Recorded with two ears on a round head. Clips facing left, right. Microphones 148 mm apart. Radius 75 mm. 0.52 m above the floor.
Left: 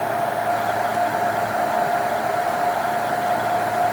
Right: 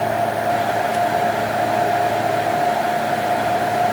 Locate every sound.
Only background noise.